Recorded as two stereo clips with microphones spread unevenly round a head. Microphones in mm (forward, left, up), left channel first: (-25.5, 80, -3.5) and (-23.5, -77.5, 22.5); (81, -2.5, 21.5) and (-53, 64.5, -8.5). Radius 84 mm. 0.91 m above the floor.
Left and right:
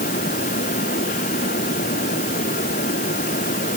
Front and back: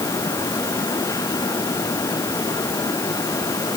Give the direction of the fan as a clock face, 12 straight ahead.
11 o'clock.